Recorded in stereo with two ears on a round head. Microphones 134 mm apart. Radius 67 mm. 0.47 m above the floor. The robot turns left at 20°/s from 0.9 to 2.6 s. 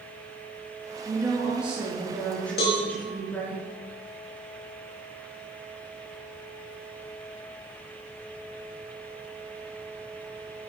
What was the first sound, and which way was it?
A woman speaking, 160° right.